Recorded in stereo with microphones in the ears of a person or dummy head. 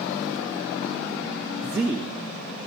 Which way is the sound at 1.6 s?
15° right (ahead or behind).